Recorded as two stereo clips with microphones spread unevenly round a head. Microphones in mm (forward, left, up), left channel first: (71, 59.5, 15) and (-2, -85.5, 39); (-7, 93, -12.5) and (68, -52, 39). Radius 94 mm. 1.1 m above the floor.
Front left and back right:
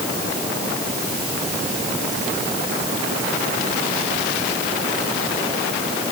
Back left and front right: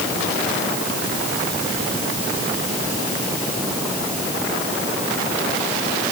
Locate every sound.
Only background noise.